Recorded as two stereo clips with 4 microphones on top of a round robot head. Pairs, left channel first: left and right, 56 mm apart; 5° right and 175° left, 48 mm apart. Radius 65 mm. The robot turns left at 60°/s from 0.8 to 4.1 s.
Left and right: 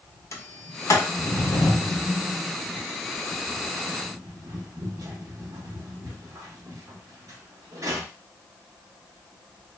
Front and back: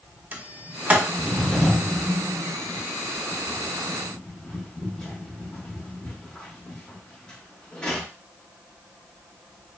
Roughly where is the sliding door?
Behind left.